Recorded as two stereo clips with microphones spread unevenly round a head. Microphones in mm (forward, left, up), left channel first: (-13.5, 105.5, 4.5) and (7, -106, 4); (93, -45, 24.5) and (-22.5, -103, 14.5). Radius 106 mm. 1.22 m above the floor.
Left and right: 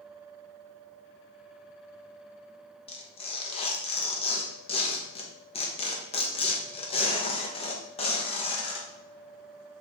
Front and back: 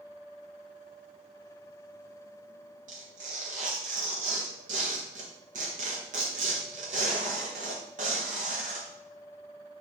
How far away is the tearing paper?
About 1.1 m.